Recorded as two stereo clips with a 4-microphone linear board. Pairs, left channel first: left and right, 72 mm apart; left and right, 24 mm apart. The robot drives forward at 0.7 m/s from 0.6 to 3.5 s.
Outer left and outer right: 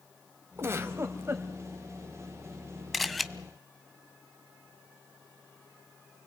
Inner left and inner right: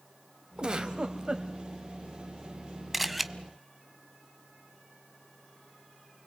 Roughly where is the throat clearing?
No throat clearing in this recording.